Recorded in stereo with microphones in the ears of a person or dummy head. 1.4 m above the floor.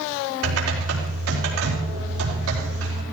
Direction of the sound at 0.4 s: 90° right.